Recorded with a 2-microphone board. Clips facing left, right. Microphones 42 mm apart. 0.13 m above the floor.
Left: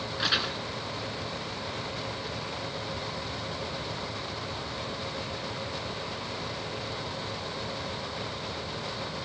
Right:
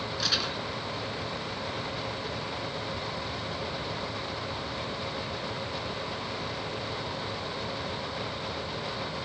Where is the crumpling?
25° left (ahead or behind), 2 m.